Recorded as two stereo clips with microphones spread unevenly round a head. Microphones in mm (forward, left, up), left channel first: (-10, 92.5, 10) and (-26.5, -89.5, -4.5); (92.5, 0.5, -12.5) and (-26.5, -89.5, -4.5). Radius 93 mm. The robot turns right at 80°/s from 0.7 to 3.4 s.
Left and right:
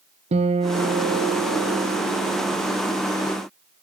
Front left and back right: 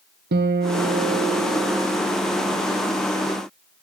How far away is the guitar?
About 1.1 m.